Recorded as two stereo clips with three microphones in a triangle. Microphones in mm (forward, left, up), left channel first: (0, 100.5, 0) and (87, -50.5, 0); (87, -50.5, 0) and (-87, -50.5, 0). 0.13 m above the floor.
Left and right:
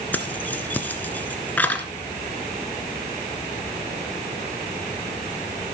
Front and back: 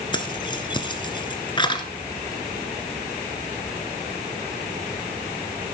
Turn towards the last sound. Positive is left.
turn(degrees=45)